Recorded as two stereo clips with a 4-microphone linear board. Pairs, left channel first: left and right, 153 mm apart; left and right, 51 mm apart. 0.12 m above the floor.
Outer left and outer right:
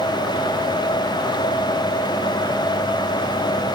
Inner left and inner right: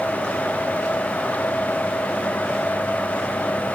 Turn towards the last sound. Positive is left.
No sound to turn to.